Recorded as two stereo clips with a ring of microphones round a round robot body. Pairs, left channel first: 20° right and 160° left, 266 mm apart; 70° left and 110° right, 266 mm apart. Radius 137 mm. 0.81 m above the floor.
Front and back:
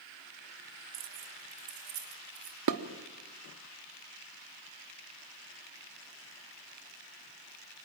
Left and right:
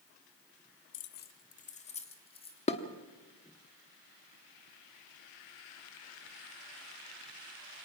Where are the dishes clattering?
135° left, 1.2 m.